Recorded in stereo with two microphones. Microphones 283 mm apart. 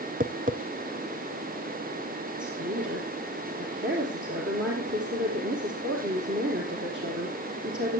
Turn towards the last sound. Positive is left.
turn(degrees=-45)  # may be behind; listen again after turning